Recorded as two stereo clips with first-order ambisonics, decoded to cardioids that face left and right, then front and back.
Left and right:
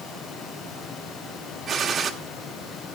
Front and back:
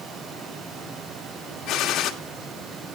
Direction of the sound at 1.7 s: 35° right.